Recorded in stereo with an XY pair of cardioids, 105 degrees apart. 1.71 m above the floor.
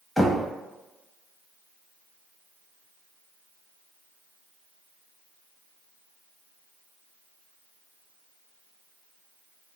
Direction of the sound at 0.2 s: 10° left.